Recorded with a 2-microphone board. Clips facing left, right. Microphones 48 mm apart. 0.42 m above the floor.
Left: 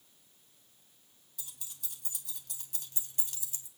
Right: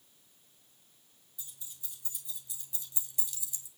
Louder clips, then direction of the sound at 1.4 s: Left 2 dB; 70° left (ahead or behind).